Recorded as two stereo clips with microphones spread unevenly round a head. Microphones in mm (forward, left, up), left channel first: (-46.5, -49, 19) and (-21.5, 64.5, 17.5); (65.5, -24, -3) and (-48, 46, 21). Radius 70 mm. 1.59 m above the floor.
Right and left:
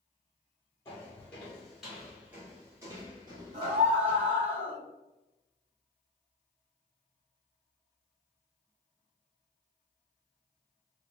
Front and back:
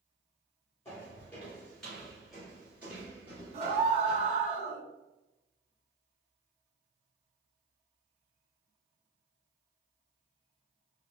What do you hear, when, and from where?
0.8 s footsteps: 105° right, 1.6 m; by 4.3 s 100° left, 2 m
3.5 s a scream: 110° left, 1.3 m